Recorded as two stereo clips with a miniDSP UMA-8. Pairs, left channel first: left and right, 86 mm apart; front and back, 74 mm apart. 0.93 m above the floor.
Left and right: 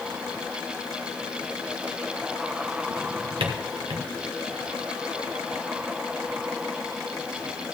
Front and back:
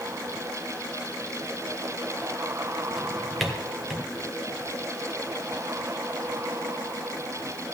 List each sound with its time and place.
3.0 s a drawer: 90° right, 1.5 m